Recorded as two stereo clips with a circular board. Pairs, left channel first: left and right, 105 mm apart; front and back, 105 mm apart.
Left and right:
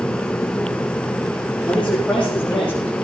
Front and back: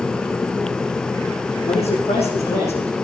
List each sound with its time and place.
1.7 s a man speaking: 5° left, 7 m; by 3.0 s straight ahead, 6.5 m